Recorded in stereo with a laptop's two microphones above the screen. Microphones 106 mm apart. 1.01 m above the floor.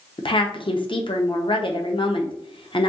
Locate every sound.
0.2 s a woman speaking: 55° left (ahead or behind), 0.6 m